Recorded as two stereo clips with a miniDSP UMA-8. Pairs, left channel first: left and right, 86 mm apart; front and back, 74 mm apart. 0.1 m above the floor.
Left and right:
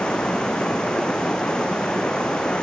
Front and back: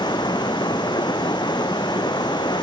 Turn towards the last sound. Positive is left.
turn(degrees=10)